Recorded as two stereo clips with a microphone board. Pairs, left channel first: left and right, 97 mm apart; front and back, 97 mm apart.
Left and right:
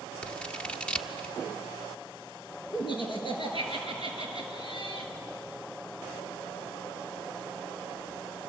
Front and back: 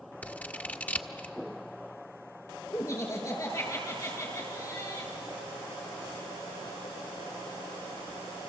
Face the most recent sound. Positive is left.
turn(degrees=55)